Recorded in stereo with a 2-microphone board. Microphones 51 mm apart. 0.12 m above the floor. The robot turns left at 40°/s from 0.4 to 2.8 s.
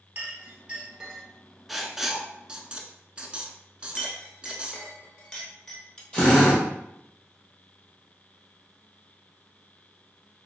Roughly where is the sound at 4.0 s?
Centre.